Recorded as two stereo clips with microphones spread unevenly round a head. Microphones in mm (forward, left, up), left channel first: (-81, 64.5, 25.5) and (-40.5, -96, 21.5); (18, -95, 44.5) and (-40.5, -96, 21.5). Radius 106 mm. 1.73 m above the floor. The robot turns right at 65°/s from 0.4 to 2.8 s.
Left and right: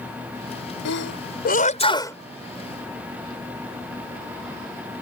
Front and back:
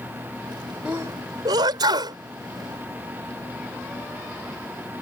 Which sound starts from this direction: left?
A sneeze, at 0.8 s.